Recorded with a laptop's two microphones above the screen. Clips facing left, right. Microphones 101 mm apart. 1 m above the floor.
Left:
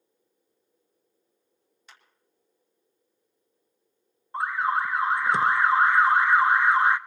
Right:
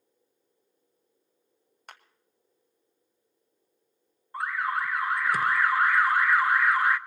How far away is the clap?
About 1.0 m.